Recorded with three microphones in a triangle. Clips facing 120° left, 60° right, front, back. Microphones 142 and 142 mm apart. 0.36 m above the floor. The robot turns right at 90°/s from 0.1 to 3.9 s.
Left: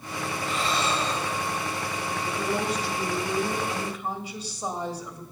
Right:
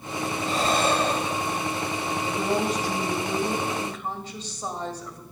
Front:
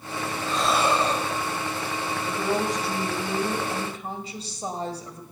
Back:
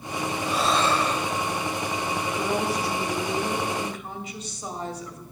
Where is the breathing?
110° right, 0.8 m; by 1.6 s 5° right, 0.8 m.